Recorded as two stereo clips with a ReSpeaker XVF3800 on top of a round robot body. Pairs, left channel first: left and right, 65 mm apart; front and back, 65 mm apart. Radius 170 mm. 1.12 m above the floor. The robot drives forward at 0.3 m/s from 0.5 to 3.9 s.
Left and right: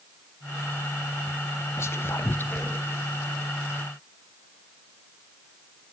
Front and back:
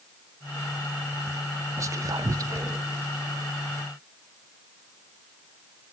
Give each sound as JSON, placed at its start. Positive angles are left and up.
{"t": 1.8, "sound": "whispering", "azimuth_deg": 140, "distance_m": 0.5}